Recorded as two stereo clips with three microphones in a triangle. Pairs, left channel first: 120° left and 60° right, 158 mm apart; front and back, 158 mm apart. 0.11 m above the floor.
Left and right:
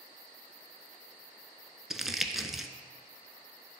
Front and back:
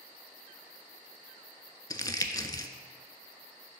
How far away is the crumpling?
About 0.5 m.